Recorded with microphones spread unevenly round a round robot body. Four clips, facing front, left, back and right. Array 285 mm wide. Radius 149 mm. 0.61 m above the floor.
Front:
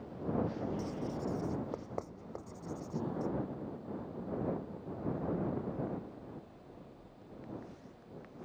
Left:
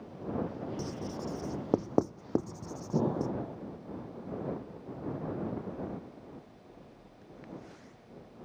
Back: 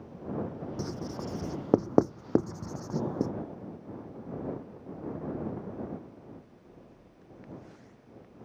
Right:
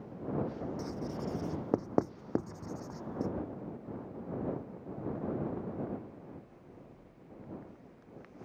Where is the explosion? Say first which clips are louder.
Left 8 dB, back 5 dB; 110° left.